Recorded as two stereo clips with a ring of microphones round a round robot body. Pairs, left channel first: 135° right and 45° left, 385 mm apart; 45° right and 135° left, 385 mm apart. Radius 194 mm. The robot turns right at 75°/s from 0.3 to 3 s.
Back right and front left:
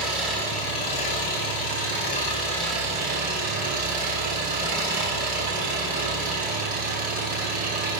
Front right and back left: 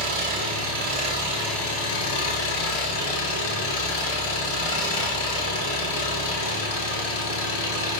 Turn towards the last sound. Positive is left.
turn(degrees=-25)